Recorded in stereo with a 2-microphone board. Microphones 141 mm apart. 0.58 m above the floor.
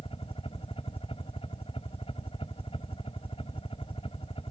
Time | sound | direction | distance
0.0 | a helicopter | 40° left (ahead or behind) | ?